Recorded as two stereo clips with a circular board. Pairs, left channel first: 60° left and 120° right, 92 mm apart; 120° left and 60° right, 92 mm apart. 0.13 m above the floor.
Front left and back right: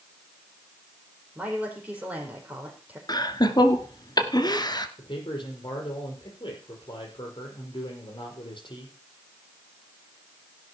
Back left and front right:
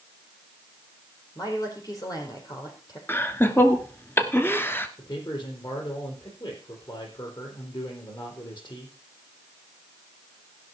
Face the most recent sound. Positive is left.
turn(degrees=90)